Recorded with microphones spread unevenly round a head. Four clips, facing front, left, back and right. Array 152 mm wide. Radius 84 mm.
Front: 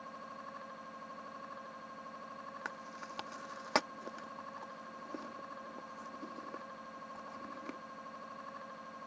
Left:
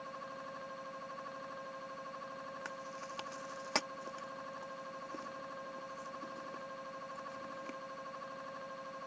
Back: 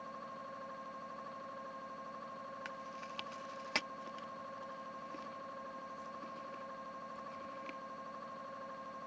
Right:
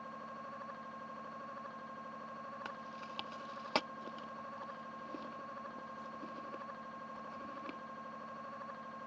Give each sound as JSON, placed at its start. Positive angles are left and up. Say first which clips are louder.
{"t": 2.6, "sound": "chewing", "louder": "left 1 dB, front 1 dB", "azimuth_deg": -10}